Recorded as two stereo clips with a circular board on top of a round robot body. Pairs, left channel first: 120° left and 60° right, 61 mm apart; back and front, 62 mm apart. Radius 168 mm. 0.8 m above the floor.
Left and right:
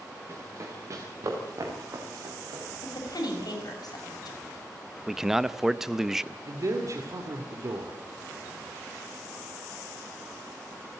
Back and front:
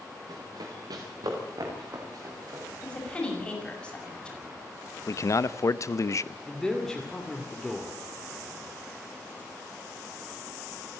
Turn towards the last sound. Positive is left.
turn(degrees=-95)